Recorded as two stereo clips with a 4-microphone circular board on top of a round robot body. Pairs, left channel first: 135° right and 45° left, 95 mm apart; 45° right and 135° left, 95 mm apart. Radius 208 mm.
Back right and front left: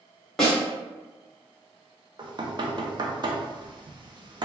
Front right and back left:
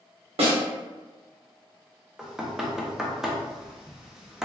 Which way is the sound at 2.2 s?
50° left.